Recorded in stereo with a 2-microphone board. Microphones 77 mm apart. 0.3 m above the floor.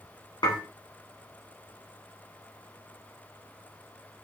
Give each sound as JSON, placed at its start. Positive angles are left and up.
{"t": 0.4, "sound": "dishes clattering", "side_deg": 65, "distance_m": 1.9}